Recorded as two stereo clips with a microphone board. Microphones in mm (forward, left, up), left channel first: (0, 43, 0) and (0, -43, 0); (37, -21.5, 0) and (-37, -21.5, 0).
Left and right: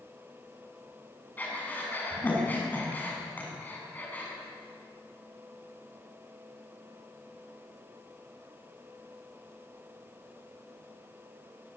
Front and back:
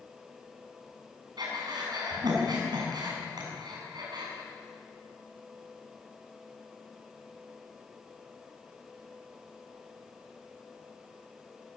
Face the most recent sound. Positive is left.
turn(degrees=160)